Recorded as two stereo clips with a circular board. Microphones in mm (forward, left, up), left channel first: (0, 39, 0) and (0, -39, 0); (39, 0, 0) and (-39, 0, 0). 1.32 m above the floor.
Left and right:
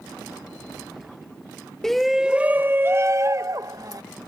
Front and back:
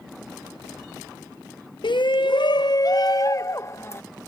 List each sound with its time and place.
1.8 s a shout: 5° left; by 4.0 s 55° right